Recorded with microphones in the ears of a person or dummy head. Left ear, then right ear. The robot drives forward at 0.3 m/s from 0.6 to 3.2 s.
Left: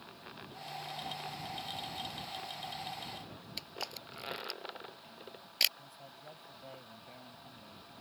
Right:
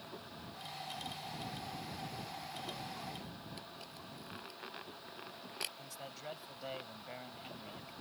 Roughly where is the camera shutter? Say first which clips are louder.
Left 7 dB; left.